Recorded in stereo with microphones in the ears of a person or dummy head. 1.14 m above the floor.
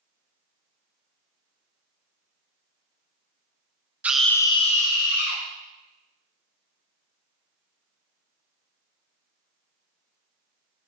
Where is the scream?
10° right (ahead or behind), 0.7 m; by 5.4 s 55° left (ahead or behind), 1.2 m.